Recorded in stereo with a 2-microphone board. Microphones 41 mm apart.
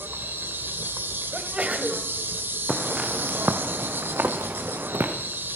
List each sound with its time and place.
0.0 s an insect: 65° right (ahead or behind), 2 m
1.3 s a sneeze: 30° right (ahead or behind), 2.5 m
2.7 s footsteps: 15° right (ahead or behind), 1.9 m; by 5.1 s 80° right, 3 m